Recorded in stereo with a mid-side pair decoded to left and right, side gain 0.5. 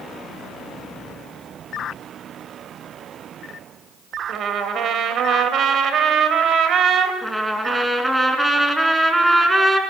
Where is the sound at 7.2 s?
10° right, 4.5 m.